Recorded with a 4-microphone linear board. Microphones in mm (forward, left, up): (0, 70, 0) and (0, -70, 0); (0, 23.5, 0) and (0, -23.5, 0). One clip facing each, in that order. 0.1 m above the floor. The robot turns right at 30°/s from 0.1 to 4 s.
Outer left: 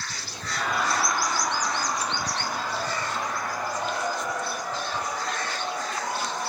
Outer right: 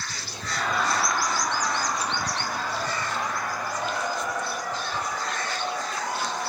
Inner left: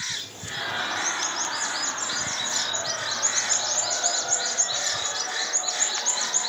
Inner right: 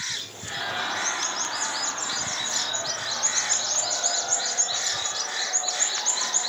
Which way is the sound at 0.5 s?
5° left (ahead or behind).